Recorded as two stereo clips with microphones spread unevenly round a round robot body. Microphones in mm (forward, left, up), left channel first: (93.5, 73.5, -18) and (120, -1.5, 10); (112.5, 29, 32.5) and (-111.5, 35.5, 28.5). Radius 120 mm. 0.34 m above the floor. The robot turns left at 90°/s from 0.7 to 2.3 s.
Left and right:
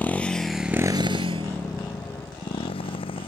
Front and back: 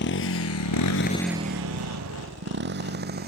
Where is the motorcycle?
40° left; by 3.3 s 130° left.